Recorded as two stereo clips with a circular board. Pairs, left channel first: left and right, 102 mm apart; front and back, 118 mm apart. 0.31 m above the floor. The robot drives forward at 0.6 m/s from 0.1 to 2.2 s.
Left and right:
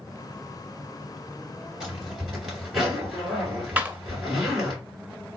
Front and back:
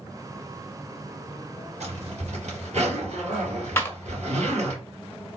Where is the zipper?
175° right, 2.5 m.